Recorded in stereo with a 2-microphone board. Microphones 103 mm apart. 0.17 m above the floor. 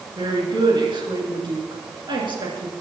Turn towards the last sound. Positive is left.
turn(degrees=-50)  # may be behind; listen again after turning